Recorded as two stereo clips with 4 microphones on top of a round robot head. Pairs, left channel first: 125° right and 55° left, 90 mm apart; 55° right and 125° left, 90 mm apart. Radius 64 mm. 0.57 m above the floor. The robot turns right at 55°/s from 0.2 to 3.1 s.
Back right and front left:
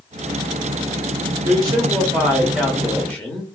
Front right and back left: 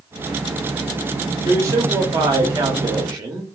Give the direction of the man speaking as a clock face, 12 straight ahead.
9 o'clock.